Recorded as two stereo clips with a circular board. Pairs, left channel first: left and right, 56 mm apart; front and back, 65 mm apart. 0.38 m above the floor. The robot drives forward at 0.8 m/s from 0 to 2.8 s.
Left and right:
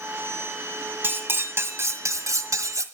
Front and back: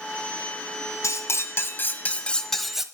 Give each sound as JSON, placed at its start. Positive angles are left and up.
{"t": 1.0, "sound": "cutlery clinking", "azimuth_deg": -35, "distance_m": 1.7}